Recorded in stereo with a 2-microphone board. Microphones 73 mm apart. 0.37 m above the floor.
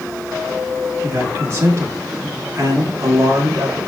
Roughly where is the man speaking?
Right.